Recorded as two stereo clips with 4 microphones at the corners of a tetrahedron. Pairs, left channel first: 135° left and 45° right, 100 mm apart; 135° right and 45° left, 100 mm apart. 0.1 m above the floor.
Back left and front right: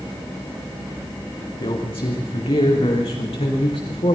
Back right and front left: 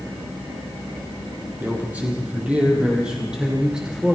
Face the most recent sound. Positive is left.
turn(degrees=130)